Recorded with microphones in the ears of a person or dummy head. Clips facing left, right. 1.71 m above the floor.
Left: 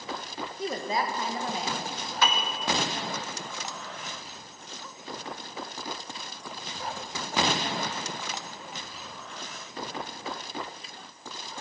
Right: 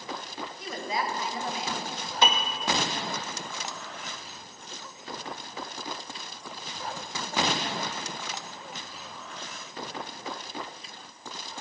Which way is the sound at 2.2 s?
20° right (ahead or behind).